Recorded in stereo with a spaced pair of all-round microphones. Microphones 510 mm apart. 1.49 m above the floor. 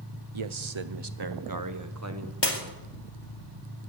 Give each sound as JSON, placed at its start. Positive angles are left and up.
{"t": 0.3, "sound": "a man speaking", "side_deg": -70, "distance_m": 0.8}
{"t": 2.4, "sound": "breaking glass", "side_deg": 55, "distance_m": 2.5}